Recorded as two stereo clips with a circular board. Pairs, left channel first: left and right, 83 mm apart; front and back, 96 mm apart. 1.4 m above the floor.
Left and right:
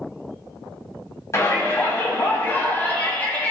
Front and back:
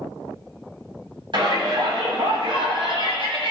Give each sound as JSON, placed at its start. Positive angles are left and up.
{"t": 1.3, "sound": "a shout", "azimuth_deg": 145, "distance_m": 5.5}